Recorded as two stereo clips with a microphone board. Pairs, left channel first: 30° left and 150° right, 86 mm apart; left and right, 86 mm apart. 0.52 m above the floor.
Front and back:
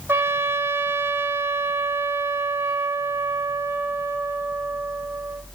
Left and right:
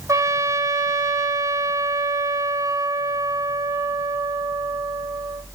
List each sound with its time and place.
0.1 s a trumpet: 105° right, 1.2 m